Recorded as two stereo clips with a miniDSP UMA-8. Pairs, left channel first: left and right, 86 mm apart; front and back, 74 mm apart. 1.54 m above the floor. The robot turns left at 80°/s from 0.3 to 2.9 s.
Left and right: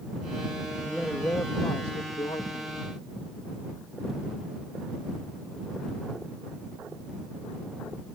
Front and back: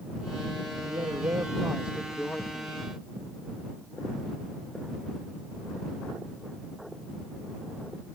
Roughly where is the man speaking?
Behind.